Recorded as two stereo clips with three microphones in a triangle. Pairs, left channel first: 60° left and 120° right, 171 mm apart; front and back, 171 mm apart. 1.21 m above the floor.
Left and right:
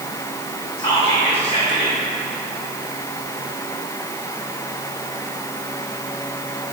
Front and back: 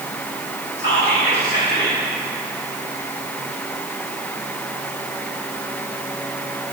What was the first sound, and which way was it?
Whispering, straight ahead.